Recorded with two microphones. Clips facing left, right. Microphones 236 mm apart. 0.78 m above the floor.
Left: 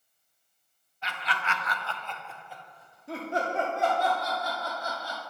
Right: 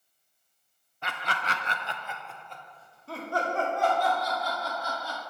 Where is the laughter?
55° right (ahead or behind), 0.7 m; by 5.2 s 30° left (ahead or behind), 2.5 m.